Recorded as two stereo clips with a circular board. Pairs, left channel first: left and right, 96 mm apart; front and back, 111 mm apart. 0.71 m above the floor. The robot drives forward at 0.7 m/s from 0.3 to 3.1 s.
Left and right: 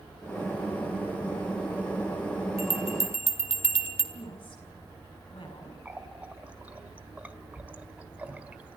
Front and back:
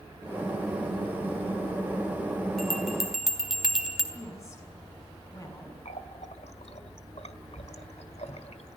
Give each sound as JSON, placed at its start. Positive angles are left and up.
{"t": 2.6, "sound": "a bell", "azimuth_deg": 85, "distance_m": 3.0}
{"t": 4.1, "sound": "a woman speaking", "azimuth_deg": 60, "distance_m": 7.5}
{"t": 5.8, "sound": "a running tap", "azimuth_deg": -15, "distance_m": 1.7}